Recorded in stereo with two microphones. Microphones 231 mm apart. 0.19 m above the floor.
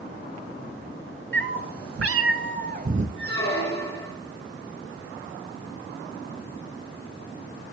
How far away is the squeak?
About 5 m.